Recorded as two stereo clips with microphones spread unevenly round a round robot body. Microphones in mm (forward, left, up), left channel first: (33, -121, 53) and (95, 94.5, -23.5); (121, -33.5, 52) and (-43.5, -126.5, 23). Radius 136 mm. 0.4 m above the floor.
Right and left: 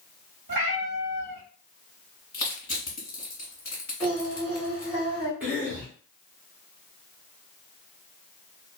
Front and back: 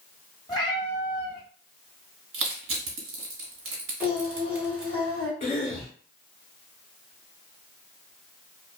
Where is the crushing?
175° left, 0.9 m.